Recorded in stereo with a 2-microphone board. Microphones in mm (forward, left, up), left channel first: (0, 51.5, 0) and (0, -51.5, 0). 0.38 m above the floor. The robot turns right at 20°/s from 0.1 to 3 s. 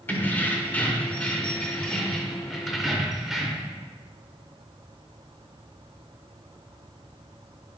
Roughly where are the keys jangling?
Centre.